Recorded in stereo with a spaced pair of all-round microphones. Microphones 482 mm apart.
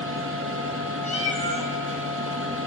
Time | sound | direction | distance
0.0 | a machine running | 25° right (ahead or behind) | 1.2 m
1.0 | a cat meowing | 15° left (ahead or behind) | 1.2 m